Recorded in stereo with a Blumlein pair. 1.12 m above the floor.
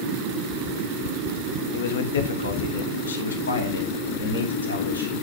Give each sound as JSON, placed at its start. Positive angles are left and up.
{"t": 1.7, "sound": "a man speaking", "azimuth_deg": 55, "distance_m": 1.4}